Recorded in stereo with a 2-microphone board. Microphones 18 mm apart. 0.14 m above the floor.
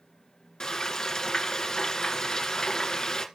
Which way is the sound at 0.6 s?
40° left (ahead or behind).